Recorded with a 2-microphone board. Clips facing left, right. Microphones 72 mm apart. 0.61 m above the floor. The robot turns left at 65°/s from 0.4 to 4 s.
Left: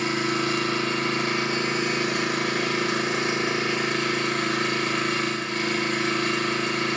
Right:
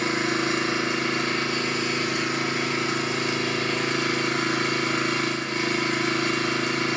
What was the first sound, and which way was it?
An engine running, 130° right.